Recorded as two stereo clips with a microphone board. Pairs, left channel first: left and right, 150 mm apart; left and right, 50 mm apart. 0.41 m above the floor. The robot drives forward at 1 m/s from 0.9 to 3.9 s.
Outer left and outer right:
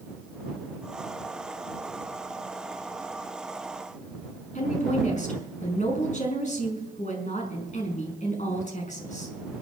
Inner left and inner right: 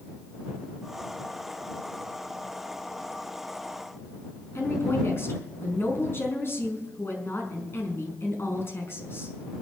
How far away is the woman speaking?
About 5 m.